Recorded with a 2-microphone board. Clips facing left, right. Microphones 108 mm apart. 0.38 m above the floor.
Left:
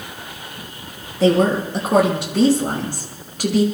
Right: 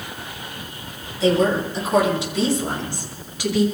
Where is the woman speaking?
65° left (ahead or behind), 4.5 m; by 3.6 s 50° left (ahead or behind), 5.5 m.